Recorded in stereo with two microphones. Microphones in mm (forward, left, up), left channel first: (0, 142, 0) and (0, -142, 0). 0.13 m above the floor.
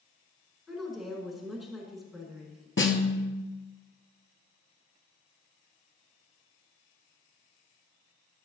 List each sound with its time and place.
0.7 s a woman speaking: centre (ahead or behind), 1.5 m
2.8 s a snare drum: 45° left (ahead or behind), 1.0 m